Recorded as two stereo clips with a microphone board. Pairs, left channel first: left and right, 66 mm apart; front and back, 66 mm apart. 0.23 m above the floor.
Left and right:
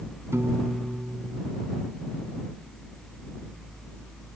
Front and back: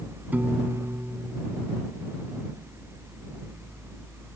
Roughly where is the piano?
Behind right.